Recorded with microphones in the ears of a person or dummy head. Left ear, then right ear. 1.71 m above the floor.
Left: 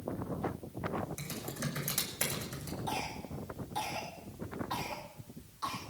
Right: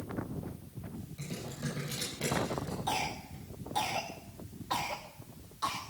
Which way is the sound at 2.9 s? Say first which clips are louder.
Right 3 dB; 10° right (ahead or behind).